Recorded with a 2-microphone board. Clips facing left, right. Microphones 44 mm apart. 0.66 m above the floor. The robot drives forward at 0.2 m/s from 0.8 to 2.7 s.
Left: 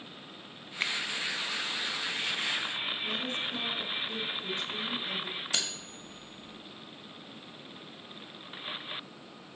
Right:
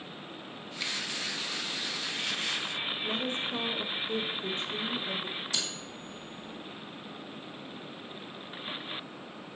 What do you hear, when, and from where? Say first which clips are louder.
0.8 s a finger snap: left 4 dB; 40° left (ahead or behind), 0.6 m; by 0.9 s 35° left (ahead or behind), 0.6 m
3.0 s a woman speaking: right 1 dB; 30° right (ahead or behind), 1.0 m
5.5 s cutlery clinking: even; 55° left (ahead or behind), 1.7 m